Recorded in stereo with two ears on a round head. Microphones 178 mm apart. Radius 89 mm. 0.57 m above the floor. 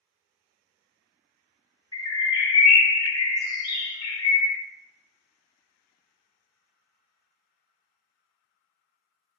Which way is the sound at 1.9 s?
20° left (ahead or behind).